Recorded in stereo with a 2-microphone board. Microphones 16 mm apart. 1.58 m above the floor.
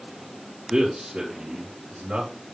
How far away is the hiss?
I don't hear a hiss.